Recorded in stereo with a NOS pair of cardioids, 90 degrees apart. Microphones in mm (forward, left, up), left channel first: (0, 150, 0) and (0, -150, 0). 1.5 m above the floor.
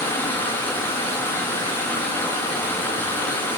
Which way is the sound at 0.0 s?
5° left.